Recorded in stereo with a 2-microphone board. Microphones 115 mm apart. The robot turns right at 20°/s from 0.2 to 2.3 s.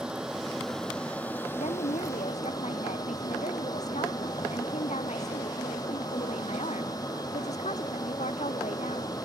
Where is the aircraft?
5° right; by 9.3 s 35° left.